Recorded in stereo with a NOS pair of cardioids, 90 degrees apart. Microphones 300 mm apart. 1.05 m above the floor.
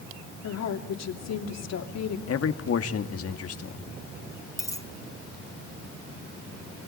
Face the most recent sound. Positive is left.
turn(degrees=10)